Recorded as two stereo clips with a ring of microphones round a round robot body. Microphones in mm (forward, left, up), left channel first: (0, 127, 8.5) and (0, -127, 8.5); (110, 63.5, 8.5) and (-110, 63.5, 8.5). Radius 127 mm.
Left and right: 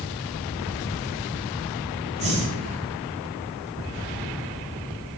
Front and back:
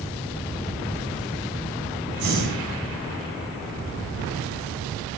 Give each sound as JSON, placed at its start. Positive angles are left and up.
{"t": 2.2, "sound": "breathing", "azimuth_deg": -155, "distance_m": 2.5}